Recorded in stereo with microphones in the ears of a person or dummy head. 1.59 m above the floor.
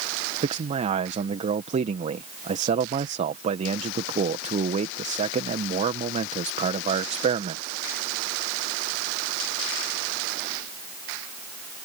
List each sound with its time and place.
0.4 s a man speaking: 40° right (ahead or behind)